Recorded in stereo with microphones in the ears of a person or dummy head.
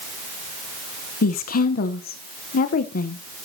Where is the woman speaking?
50° left (ahead or behind), 0.9 m.